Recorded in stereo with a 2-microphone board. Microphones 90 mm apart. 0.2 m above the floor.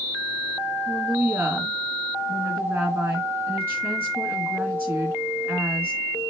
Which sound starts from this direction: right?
A woman speaking, at 0.9 s.